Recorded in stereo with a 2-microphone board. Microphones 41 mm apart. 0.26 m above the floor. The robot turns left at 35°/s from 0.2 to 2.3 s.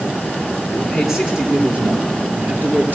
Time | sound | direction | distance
0.7 | a man speaking | 10° left | 4.5 m